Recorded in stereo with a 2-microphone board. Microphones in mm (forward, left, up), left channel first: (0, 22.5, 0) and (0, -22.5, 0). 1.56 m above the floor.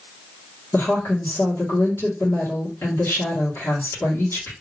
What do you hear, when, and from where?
0.7 s a woman speaking: 65° left (ahead or behind), 1.7 m